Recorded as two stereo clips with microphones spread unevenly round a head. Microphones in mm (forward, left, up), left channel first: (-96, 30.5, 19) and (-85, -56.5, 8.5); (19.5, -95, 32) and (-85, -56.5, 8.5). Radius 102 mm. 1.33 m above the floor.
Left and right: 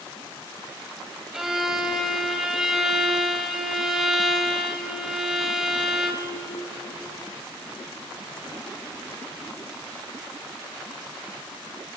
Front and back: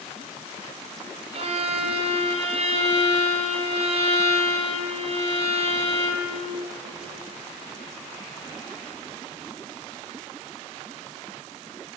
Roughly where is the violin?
Behind.